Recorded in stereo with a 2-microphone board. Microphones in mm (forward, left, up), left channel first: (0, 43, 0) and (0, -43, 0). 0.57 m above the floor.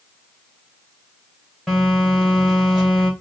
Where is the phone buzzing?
5° right (ahead or behind), 1.9 m.